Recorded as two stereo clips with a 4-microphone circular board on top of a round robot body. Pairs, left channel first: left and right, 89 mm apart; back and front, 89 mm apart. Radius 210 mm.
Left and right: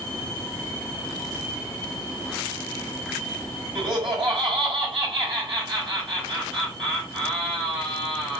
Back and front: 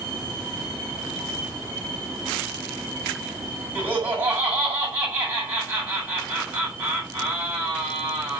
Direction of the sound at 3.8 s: 70° right.